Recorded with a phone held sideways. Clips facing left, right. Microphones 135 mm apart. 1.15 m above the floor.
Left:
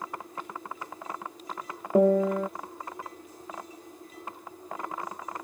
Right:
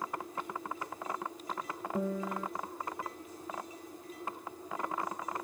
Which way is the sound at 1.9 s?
60° left (ahead or behind).